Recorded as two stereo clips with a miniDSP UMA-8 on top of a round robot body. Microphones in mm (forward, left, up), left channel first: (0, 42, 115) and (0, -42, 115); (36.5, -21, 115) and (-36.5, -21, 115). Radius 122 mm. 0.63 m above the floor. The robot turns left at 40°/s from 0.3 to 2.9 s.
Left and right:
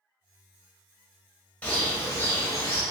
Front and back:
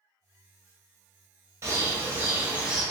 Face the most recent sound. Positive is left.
turn(degrees=105)